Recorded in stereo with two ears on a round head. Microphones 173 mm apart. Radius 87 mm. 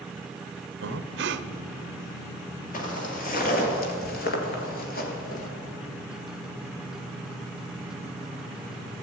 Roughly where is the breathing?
Right.